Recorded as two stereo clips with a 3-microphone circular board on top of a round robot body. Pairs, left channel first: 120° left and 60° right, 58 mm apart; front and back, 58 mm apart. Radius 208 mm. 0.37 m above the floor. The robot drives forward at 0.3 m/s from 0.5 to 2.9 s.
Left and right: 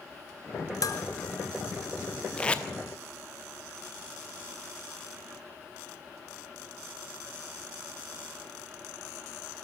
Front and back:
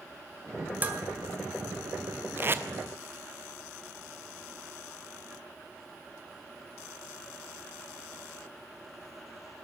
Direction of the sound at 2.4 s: Straight behind.